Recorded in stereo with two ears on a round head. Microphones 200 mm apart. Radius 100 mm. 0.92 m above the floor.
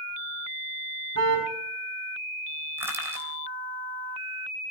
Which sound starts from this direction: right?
A car horn, at 1.1 s.